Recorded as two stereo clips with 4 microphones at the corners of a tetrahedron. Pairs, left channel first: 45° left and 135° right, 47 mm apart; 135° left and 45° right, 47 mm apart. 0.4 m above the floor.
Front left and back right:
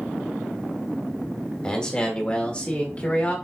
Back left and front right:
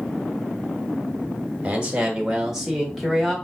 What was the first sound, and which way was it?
A man speaking, 5° right.